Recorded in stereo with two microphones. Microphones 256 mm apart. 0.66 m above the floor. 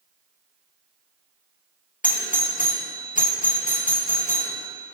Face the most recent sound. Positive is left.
turn(degrees=30)  # may be behind; listen again after turning